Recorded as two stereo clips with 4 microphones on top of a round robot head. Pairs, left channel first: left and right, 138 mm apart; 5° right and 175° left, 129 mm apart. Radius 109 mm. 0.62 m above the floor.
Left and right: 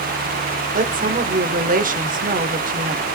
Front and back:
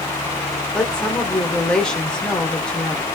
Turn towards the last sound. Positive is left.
turn(degrees=-90)